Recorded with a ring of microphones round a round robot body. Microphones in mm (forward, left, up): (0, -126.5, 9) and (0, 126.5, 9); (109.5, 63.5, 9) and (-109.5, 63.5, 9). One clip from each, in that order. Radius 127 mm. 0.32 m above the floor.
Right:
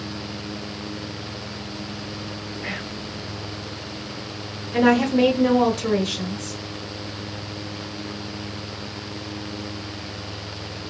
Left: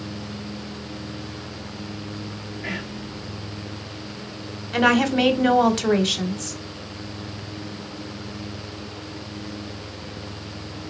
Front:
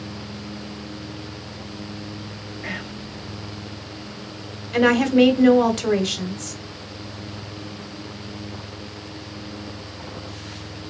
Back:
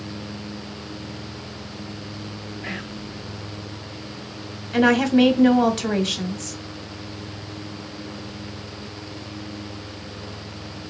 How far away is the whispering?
About 0.9 m.